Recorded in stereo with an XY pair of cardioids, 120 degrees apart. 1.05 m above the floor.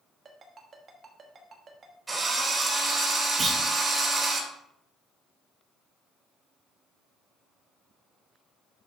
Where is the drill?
20° right, 3.5 m.